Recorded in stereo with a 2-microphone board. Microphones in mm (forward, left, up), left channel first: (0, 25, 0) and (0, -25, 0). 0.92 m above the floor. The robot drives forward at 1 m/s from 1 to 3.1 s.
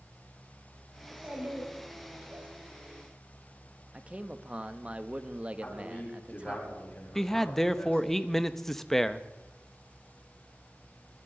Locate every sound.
1.0 s a child speaking: 30° right (ahead or behind), 5 m; by 2.5 s 45° right (ahead or behind), 3.5 m
3.9 s a man speaking: 25° right (ahead or behind), 0.8 m
5.6 s a man speaking: 35° left (ahead or behind), 5 m
7.2 s a man speaking: 5° left (ahead or behind), 0.6 m